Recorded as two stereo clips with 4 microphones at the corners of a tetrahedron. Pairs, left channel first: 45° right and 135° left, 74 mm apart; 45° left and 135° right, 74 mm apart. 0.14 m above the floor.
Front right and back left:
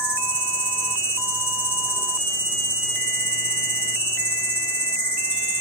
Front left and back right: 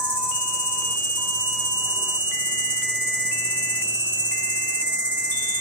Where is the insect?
85° right, 1.2 m.